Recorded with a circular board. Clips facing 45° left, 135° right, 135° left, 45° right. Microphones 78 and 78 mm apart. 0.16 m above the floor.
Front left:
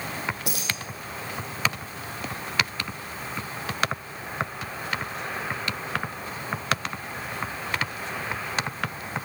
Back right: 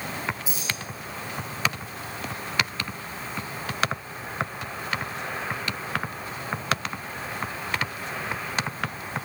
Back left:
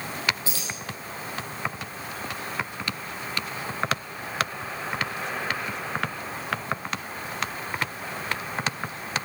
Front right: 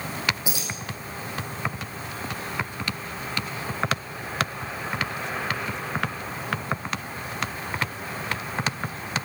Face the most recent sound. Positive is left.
turn(degrees=30)